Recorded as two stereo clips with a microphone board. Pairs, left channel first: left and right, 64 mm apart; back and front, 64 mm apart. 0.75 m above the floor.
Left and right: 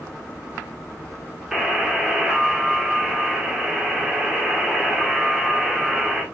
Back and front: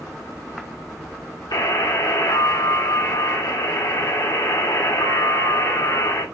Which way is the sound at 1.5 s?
175° right.